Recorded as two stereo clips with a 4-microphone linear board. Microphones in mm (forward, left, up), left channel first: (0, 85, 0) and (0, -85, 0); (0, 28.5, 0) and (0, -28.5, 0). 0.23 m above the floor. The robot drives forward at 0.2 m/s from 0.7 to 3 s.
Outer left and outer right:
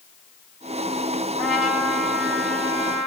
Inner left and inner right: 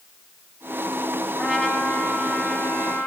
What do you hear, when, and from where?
1.4 s a trumpet: centre (ahead or behind), 1.0 m